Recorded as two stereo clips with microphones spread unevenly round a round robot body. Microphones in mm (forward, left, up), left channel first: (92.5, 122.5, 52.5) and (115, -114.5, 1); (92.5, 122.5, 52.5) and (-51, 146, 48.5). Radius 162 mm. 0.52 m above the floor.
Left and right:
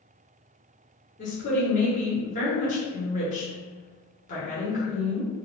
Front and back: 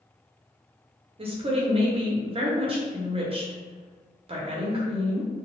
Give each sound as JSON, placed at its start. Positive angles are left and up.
{"t": 1.2, "sound": "a woman speaking", "azimuth_deg": 155, "distance_m": 0.9}